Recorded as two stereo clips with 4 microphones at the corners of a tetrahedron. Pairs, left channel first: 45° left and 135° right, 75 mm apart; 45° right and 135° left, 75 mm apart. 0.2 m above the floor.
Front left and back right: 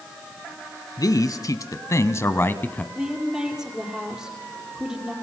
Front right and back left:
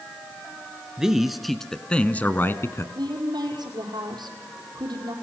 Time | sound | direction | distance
1.0 | a man speaking | 55° left | 1.9 m
3.0 | a woman speaking | 140° left | 5.5 m